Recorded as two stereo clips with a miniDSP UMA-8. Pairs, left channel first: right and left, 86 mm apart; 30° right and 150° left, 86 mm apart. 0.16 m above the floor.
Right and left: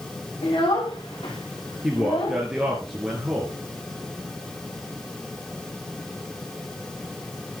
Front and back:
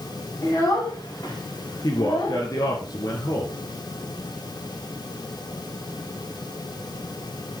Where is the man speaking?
10° left, 3 m.